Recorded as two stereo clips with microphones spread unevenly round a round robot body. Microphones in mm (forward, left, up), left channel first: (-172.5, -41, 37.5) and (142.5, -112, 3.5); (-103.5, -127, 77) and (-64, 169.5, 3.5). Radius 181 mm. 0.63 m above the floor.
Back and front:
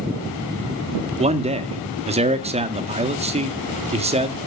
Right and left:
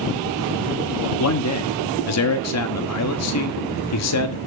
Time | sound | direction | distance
1.2 | a man speaking | 70° right | 1.5 m